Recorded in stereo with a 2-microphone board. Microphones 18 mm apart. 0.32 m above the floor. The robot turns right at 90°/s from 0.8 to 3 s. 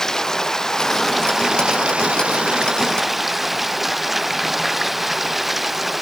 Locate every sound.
0.0 s running water: 150° left; by 6.0 s 15° right